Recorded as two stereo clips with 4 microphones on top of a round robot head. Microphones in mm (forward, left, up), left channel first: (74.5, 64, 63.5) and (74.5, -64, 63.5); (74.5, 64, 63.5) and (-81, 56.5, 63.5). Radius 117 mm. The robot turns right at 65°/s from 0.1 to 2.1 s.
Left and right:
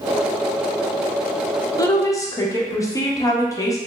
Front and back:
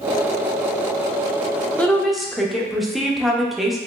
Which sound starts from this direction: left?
A woman speaking, at 1.8 s.